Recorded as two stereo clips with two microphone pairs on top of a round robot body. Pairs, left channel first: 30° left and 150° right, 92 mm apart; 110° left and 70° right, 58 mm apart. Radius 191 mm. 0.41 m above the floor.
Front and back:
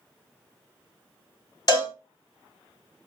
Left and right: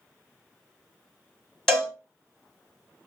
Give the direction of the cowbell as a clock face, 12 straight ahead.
11 o'clock.